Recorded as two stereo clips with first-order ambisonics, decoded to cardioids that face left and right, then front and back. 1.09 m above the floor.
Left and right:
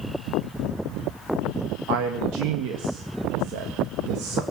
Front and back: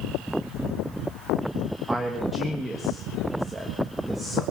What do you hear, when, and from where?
1.9 s a man speaking: 100° right, 1.4 m